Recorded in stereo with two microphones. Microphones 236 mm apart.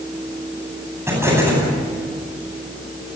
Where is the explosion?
10° right (ahead or behind), 9.5 m.